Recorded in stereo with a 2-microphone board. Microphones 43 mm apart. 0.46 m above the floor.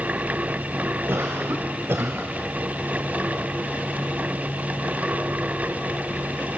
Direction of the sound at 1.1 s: 65° right (ahead or behind).